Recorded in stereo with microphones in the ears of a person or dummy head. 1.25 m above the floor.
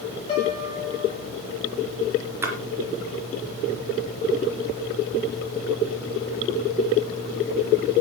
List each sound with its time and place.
0.3 s a piano: 20° left (ahead or behind), 8 m
2.4 s a splash: 20° right (ahead or behind), 3 m